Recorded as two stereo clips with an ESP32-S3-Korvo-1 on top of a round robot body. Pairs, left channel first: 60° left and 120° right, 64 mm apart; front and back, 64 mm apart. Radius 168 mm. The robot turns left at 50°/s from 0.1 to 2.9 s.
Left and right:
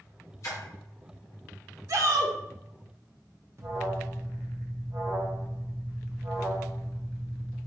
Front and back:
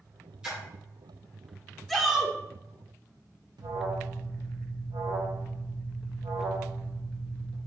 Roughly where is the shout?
Right.